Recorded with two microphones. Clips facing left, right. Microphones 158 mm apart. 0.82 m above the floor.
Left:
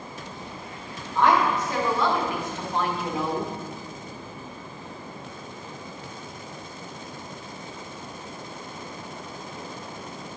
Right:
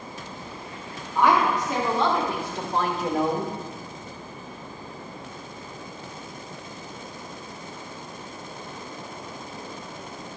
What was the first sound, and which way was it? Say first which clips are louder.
A woman speaking: even; 10° right (ahead or behind).